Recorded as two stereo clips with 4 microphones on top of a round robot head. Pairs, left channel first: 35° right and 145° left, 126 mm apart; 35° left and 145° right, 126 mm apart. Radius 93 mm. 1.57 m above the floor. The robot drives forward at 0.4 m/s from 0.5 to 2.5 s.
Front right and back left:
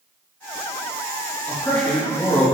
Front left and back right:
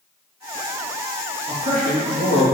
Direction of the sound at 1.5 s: 115° right.